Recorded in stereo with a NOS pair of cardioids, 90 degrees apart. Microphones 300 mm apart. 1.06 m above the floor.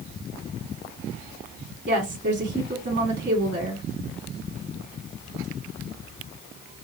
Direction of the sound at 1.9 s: 40° right.